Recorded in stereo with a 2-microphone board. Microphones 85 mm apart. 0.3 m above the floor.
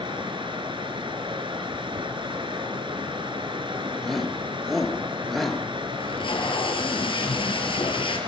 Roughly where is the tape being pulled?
Left.